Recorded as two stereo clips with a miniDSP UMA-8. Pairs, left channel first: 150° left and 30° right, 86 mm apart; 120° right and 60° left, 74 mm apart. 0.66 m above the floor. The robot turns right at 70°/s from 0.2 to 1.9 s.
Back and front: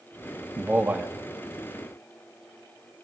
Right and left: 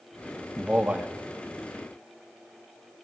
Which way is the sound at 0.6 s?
10° right.